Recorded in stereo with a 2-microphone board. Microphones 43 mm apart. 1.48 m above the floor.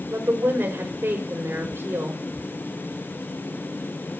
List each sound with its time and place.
0.1 s a woman speaking: 80° right, 5 m